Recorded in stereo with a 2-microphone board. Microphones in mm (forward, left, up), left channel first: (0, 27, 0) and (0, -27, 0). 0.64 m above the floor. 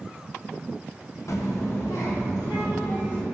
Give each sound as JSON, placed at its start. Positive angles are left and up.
{"t": 1.3, "sound": "a child speaking", "side_deg": 60, "distance_m": 0.5}